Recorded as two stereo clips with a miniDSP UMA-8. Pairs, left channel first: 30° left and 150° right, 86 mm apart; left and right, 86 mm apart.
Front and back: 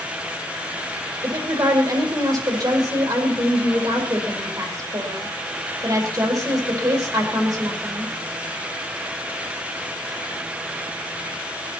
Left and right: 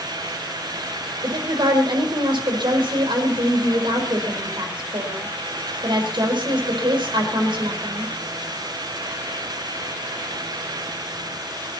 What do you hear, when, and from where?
1.2 s a woman speaking: 110° right, 5 m